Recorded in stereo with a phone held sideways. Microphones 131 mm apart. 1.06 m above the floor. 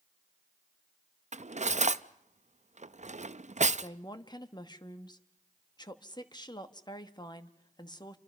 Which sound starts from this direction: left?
A woman speaking, at 3.8 s.